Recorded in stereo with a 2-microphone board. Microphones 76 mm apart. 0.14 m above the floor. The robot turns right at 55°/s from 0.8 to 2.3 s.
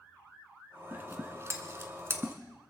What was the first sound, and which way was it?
Scissors, 25° right (ahead or behind).